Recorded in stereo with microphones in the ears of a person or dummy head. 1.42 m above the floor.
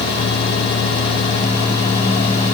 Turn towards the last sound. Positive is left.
No sound to turn to.